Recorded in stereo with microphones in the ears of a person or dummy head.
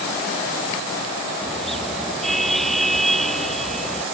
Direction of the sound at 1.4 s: Centre (ahead or behind).